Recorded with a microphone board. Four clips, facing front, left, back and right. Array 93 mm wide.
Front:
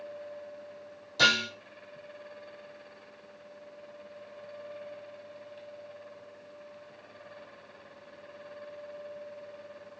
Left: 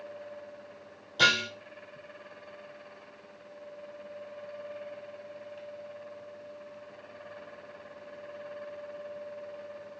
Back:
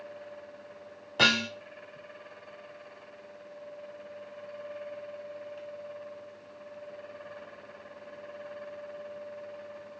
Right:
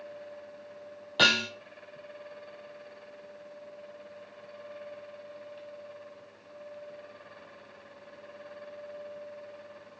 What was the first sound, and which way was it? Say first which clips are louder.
Dishes clattering: even, even; 125° right.